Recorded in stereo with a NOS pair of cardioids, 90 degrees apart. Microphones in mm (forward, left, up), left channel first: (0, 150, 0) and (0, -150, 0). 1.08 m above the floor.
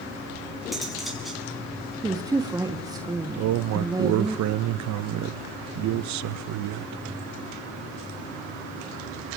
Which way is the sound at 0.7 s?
Straight ahead.